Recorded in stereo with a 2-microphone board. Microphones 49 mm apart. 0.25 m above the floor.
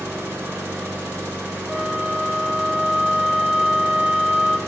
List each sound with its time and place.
0.0 s an engine running: 60° right (ahead or behind), 3 m
1.7 s a flute: centre (ahead or behind), 0.7 m